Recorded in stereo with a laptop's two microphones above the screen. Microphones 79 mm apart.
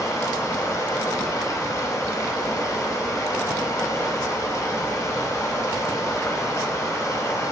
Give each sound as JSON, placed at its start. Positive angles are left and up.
{"t": 0.0, "sound": "running water", "side_deg": 45, "distance_m": 1.1}